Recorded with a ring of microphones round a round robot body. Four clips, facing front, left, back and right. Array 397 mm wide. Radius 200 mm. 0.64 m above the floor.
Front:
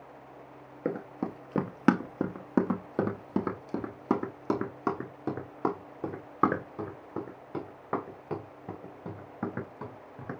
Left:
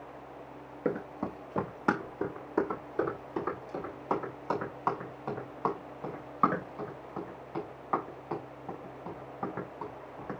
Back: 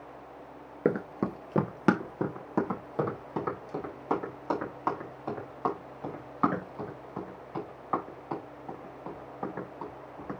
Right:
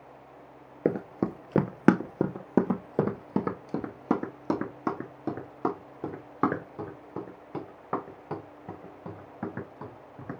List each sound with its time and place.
0.8 s running footsteps: 125° right, 0.8 m; by 10.4 s 40° right, 5.5 m